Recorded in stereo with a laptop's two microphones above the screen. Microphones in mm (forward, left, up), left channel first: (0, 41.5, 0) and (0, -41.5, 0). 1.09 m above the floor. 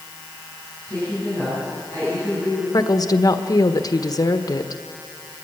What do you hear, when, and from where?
0.9 s a woman speaking: 40° right (ahead or behind), 10 m
2.7 s a woman speaking: 45° left (ahead or behind), 1.3 m